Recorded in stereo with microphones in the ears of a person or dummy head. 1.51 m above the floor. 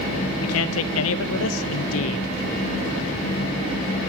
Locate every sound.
0.4 s a man speaking: 80° left, 0.5 m